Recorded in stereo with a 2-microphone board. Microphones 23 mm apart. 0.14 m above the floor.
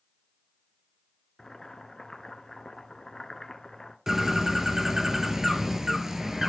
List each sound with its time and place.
1.4 s boiling: 20° left (ahead or behind), 0.8 m
4.1 s a bird: 15° right (ahead or behind), 0.7 m